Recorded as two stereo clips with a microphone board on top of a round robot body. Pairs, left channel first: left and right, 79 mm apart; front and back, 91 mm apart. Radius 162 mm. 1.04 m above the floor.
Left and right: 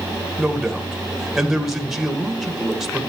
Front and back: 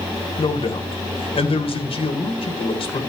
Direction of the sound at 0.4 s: 5° right.